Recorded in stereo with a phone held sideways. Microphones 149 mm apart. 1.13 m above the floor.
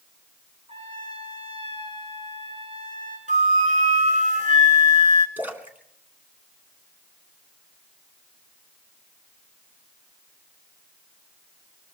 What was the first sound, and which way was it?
A trumpet, 45° right (ahead or behind).